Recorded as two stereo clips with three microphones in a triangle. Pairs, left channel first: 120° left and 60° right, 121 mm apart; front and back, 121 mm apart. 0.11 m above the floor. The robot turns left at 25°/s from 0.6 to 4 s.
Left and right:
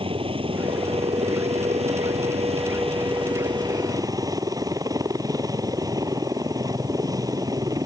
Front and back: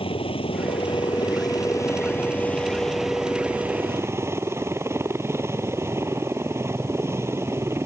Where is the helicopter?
30° right; by 7.9 s 115° right.